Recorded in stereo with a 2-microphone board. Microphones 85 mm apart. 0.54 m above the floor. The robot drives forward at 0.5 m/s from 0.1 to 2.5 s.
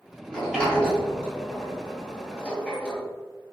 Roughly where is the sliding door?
Centre.